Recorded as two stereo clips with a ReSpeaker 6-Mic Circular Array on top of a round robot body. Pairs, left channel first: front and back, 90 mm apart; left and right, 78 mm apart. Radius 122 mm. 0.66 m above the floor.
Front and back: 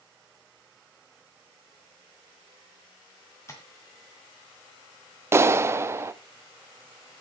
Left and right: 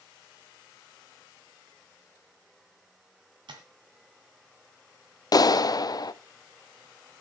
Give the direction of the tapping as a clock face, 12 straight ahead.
2 o'clock.